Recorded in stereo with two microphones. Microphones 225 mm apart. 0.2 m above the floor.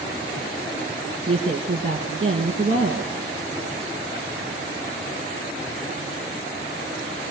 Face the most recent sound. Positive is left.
turn(degrees=-40)  # may be behind; listen again after turning